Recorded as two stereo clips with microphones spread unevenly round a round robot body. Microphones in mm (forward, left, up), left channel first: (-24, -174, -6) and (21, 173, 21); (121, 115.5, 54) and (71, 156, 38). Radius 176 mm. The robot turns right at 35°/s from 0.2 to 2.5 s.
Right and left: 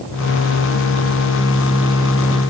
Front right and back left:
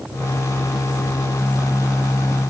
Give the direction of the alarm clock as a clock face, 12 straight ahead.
No alarm clock in this recording.